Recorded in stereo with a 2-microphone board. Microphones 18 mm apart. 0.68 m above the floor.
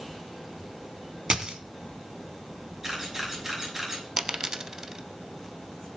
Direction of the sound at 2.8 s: 15° right (ahead or behind).